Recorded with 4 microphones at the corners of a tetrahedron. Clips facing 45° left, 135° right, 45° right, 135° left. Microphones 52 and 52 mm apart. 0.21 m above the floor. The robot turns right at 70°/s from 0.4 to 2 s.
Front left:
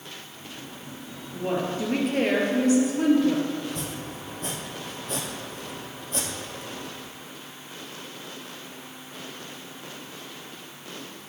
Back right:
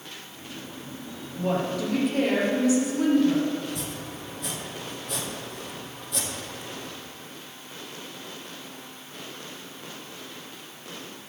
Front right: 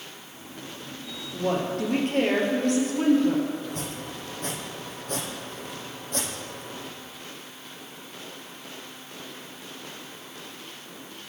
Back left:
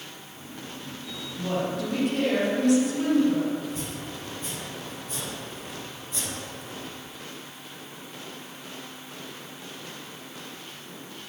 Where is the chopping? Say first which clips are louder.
Front left 1 dB, even; 10° right, 2.5 m.